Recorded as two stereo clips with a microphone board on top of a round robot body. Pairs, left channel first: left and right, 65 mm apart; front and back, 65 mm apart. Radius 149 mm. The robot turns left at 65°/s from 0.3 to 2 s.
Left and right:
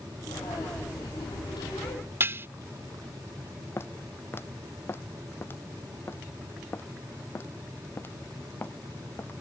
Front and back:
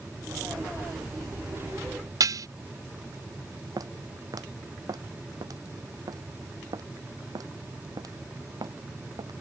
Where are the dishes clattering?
150° right.